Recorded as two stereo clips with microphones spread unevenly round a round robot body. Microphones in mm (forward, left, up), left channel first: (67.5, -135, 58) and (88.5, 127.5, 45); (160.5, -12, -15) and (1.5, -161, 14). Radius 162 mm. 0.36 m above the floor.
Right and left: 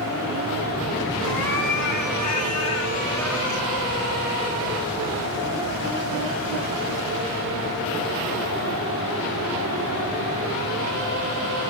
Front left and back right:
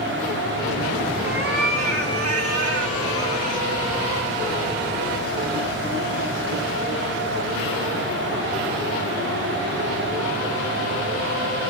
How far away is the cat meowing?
About 2.5 m.